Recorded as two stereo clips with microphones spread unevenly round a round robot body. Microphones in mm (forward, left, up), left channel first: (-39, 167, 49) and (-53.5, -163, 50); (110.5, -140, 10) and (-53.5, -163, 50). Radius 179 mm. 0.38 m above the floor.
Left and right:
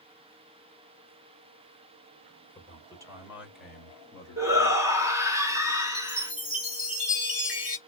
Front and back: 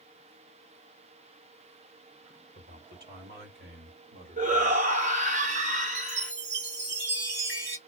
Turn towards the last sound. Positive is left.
turn(degrees=180)